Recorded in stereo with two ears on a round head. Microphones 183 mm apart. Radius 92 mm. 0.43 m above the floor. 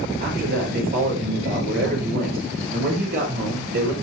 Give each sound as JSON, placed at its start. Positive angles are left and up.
{"t": 0.2, "sound": "a man speaking", "side_deg": -45, "distance_m": 10.0}